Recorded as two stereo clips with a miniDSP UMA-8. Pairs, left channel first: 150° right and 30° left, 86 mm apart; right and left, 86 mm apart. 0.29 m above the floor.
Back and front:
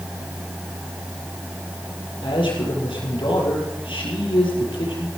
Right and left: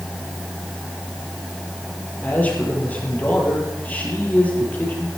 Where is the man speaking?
160° right, 6 m.